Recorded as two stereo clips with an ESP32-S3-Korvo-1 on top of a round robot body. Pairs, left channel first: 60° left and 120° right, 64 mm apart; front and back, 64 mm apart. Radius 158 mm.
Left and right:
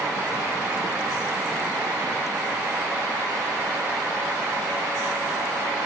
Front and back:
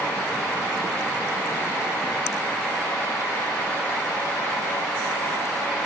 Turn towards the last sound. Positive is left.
No sound to turn to.